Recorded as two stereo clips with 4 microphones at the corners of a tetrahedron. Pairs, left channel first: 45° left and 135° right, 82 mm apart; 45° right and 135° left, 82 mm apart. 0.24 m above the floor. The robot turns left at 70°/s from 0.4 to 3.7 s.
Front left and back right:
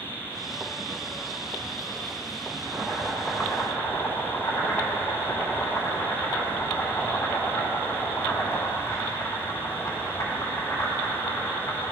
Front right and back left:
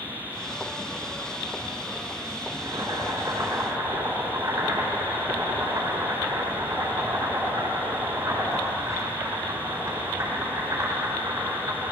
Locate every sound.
2.5 s boiling: 175° left, 3 m; by 11.9 s 95° left, 3 m